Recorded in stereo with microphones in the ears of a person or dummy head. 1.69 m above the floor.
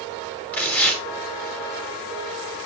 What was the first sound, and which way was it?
Tearing paper, 15° left (ahead or behind).